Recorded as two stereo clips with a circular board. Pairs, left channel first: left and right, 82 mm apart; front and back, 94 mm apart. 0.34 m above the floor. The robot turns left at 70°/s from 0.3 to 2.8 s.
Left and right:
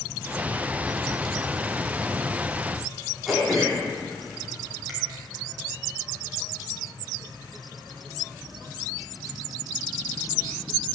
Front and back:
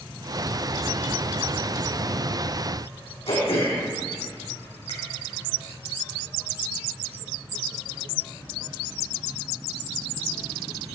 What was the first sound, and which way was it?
Throat clearing, straight ahead.